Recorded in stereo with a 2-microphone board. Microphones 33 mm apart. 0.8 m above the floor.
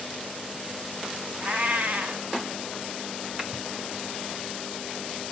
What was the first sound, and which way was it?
A cat meowing, 50° right (ahead or behind).